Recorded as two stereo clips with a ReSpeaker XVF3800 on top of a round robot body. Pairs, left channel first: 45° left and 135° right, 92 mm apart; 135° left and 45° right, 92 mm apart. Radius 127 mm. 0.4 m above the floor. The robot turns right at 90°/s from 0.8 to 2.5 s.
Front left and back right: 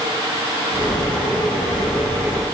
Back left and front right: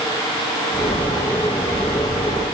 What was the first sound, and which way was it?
Only background noise.